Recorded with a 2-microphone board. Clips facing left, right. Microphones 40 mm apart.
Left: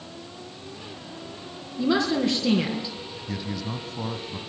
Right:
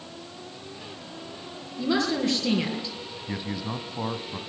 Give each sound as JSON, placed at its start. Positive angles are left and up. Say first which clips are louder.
{"t": 1.8, "sound": "a woman speaking", "louder": "left 2 dB", "side_deg": 20, "distance_m": 4.0}
{"t": 3.3, "sound": "a man speaking", "louder": "even", "side_deg": -20, "distance_m": 1.5}